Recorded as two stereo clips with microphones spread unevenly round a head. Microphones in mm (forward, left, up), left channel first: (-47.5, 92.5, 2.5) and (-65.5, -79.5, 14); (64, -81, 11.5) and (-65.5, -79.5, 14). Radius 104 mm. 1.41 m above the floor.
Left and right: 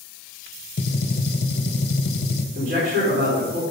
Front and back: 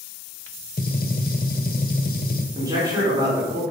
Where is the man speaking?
120° right, 5 m.